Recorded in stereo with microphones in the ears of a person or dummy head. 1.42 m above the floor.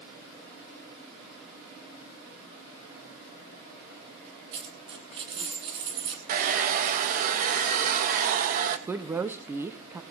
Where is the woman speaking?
15° right (ahead or behind), 0.8 m.